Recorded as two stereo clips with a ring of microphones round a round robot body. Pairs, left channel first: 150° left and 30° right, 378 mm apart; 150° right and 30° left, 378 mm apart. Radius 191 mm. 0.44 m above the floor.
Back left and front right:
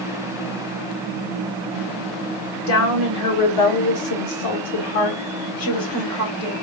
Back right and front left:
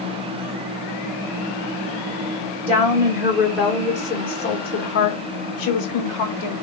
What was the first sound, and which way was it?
A woman speaking, 105° left.